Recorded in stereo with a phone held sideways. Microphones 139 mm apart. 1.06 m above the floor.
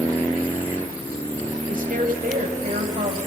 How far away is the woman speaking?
About 7 m.